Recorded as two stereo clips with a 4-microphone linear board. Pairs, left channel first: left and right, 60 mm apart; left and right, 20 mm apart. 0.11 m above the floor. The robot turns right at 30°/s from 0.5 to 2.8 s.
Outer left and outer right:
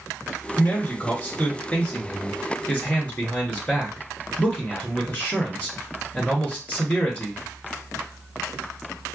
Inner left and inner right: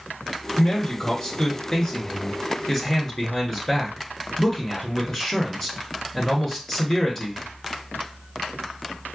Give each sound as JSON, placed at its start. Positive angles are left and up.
{"t": 0.6, "sound": "a man speaking", "side_deg": 25, "distance_m": 1.2}